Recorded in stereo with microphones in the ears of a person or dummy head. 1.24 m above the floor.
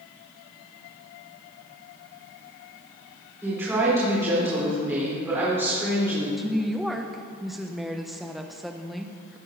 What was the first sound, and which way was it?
A woman speaking, 10° right (ahead or behind).